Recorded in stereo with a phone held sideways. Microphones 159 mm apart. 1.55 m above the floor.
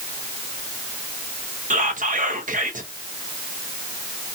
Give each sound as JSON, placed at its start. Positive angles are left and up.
{"t": 1.7, "sound": "whispering", "side_deg": -55, "distance_m": 0.9}